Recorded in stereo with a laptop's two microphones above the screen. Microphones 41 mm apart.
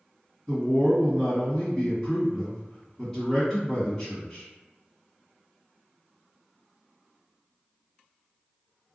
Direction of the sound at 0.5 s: 10° left (ahead or behind).